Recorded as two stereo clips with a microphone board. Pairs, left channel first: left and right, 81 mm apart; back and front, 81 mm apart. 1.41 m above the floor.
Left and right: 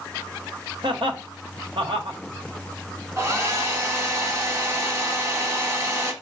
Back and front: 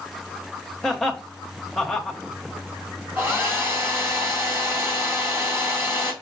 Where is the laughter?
95° right, 1.0 m.